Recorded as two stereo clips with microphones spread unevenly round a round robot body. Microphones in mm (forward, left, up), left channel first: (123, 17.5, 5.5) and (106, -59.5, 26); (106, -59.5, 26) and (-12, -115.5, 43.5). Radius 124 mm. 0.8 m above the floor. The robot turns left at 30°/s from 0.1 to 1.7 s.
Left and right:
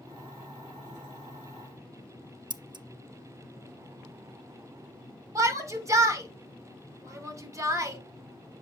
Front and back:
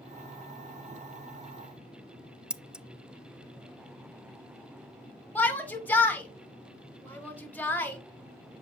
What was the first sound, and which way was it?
Scissors, 70° right.